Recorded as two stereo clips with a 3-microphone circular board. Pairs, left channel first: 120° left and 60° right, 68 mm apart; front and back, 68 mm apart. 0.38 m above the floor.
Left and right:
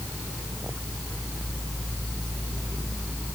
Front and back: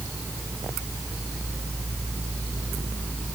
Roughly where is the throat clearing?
I don't hear throat clearing.